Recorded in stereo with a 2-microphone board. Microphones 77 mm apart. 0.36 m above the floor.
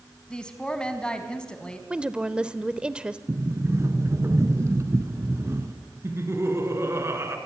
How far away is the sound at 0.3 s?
About 3 m.